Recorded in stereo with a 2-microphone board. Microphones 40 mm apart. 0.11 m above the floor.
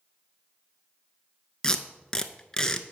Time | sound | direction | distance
1.6 | tape being pulled | 20° left (ahead or behind) | 0.5 m